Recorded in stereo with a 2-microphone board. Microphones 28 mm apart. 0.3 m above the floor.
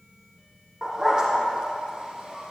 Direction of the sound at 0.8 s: 25° right (ahead or behind).